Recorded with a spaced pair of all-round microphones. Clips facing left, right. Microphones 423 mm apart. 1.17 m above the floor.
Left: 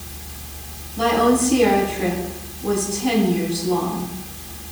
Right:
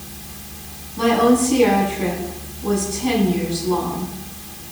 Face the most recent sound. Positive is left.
turn(degrees=-15)  # may be behind; listen again after turning